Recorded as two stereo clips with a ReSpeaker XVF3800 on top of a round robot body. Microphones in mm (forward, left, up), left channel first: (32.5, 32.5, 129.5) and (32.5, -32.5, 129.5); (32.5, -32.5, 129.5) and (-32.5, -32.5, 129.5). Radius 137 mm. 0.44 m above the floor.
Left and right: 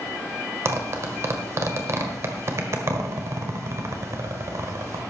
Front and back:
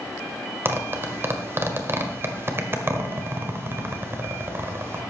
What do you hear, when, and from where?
0.7 s a zipper: 130° right, 1.8 m